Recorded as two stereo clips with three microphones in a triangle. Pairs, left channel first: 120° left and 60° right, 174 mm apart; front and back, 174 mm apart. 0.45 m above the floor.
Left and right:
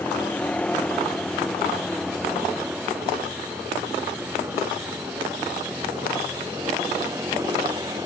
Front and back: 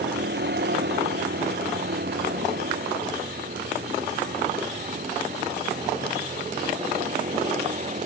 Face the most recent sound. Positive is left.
turn(degrees=-130)